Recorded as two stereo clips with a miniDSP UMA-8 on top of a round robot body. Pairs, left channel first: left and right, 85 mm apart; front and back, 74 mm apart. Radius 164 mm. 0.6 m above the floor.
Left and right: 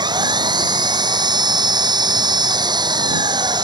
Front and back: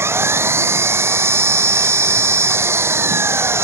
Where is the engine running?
125° right.